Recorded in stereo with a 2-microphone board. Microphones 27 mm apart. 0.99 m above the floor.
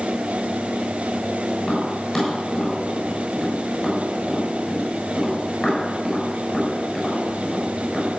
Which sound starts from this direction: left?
Tapping, at 1.6 s.